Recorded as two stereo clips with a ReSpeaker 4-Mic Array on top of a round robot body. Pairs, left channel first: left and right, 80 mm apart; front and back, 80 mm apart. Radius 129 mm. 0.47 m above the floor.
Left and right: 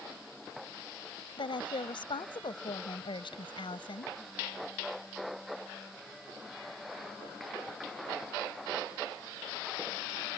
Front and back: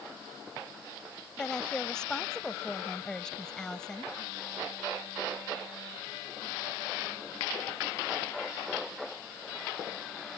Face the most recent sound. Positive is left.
turn(degrees=80)